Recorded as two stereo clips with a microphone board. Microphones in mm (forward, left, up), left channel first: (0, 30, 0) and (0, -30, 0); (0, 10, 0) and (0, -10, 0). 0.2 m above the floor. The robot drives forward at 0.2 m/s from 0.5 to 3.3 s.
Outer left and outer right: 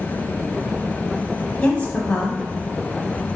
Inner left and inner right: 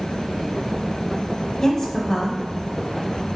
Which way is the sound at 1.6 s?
20° left (ahead or behind).